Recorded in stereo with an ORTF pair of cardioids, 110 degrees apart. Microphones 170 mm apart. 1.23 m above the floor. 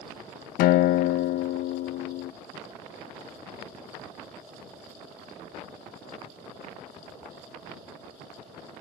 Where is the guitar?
65° left, 0.6 m.